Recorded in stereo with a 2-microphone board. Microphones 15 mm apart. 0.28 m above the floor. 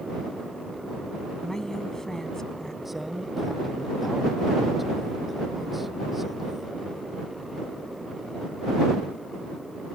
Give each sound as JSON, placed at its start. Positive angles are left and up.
{"t": 1.4, "sound": "a woman speaking", "side_deg": 40}
{"t": 2.9, "sound": "a man speaking", "side_deg": -5}